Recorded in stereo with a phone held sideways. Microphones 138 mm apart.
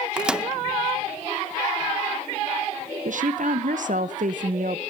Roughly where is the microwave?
Centre.